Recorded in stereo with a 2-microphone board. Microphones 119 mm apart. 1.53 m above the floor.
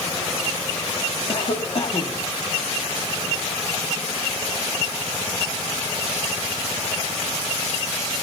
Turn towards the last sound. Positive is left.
turn(degrees=55)  # may be behind; listen again after turning